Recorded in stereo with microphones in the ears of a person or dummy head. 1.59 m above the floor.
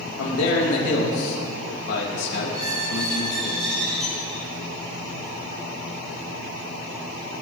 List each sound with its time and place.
0.2 s a man speaking: 80° left, 3 m
2.5 s a squeak: 30° right (ahead or behind), 6 m